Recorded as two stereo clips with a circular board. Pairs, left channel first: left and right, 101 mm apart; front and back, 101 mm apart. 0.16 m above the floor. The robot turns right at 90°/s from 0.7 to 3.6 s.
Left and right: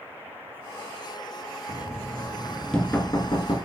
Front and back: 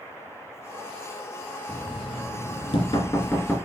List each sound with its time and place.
1.7 s knocking: 85° right, 2 m; by 3.6 s 80° left, 2 m